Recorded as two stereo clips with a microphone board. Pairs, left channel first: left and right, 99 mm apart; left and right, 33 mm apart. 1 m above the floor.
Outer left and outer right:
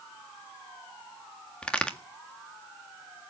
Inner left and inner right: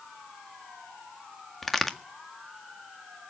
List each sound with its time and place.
1.6 s a crack: 10° left (ahead or behind), 1.6 m